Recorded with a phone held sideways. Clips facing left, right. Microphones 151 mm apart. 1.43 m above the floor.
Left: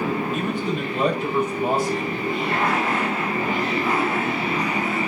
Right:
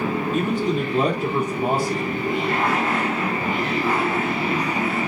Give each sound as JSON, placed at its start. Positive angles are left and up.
{"t": 0.3, "sound": "a man speaking", "side_deg": -40, "distance_m": 3.5}